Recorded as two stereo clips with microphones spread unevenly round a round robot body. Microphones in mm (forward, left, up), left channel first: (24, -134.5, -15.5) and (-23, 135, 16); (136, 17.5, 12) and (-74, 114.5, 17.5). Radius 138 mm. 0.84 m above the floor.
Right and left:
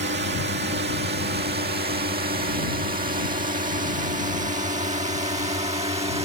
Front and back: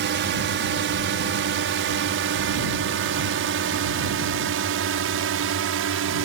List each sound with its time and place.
0.0 s a drone: 145° left; by 6.2 s 170° left